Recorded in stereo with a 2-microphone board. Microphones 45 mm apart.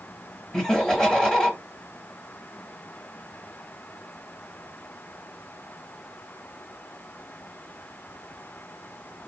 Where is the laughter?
20° left (ahead or behind), 1.1 m.